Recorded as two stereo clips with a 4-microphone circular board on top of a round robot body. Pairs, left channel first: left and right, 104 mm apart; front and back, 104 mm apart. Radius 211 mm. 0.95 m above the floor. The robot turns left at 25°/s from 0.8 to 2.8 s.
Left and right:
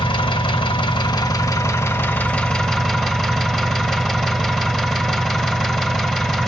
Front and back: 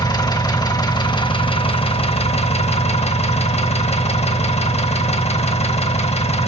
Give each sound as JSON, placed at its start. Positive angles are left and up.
{"t": 0.0, "sound": "an engine running", "azimuth_deg": 45, "distance_m": 1.6}